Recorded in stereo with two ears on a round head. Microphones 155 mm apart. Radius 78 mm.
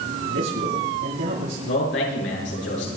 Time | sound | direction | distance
0.3 | a man speaking | 85° right | 8.5 m
1.7 | a man speaking | 70° left (ahead or behind) | 7.5 m